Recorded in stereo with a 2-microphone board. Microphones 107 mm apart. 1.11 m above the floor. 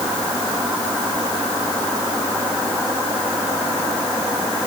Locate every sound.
Only background noise.